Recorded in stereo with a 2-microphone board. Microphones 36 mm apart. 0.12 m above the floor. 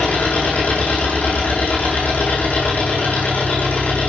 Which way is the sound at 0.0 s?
55° left (ahead or behind).